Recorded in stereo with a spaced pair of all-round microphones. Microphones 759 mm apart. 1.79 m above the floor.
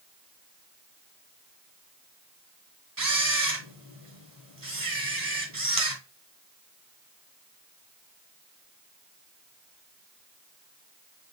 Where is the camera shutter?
25° right (ahead or behind), 1.0 m.